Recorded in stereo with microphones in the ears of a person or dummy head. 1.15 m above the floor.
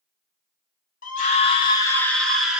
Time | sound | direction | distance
1.0 | a scream | 40° left (ahead or behind) | 0.8 m